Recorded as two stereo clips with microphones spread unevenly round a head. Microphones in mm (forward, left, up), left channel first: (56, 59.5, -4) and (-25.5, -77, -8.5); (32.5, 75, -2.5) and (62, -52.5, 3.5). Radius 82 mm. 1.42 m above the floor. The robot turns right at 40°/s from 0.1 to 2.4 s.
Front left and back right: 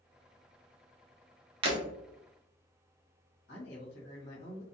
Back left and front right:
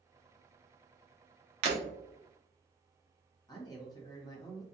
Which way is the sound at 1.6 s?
75° right.